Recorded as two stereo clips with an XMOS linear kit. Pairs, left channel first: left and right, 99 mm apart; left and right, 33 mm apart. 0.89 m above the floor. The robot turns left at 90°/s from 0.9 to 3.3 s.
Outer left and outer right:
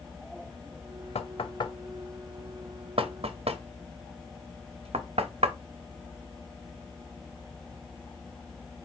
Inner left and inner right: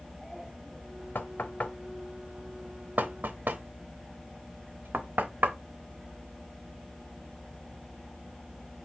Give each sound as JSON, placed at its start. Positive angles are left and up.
{"t": 1.1, "sound": "knocking", "side_deg": 85, "distance_m": 0.5}